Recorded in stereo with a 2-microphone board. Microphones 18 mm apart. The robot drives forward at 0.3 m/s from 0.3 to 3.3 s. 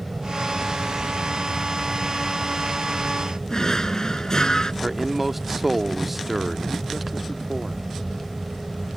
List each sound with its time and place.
0.0 s an aircraft: 20° right (ahead or behind)
3.5 s a drawer: 45° left (ahead or behind)
4.8 s a man speaking: 15° right (ahead or behind)